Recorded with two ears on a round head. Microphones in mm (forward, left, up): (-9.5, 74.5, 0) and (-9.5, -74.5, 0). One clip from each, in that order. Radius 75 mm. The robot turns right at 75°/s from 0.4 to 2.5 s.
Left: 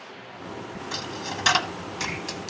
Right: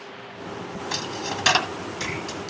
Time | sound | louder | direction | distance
0.9 | a dropped coin | right 3 dB | 25° right (ahead or behind) | 1.3 m